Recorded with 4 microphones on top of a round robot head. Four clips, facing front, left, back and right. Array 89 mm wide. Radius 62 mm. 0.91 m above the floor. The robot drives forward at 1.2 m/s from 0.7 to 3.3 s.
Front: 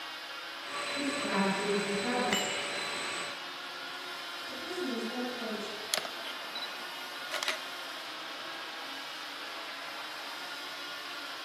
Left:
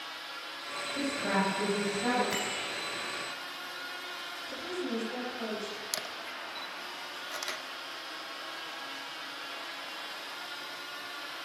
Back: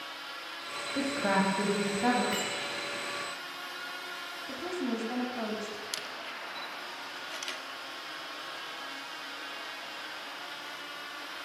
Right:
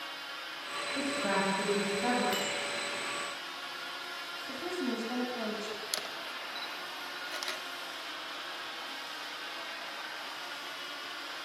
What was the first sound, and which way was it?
A woman speaking, 170° right.